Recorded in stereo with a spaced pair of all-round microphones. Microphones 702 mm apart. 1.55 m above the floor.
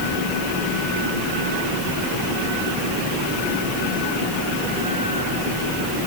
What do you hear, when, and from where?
Only background noise.